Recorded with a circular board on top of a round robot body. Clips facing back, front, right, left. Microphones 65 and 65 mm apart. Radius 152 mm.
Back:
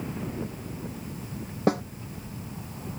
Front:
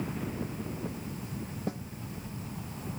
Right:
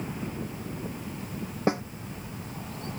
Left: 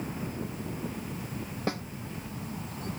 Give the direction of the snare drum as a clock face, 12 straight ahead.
5 o'clock.